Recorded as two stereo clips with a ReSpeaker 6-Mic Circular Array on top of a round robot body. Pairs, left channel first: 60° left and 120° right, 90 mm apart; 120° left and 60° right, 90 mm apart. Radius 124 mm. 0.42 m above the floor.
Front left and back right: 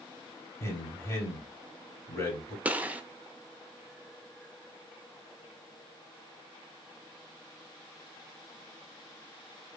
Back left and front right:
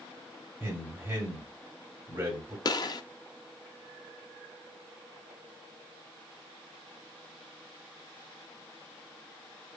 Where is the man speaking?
5° left, 2.5 m.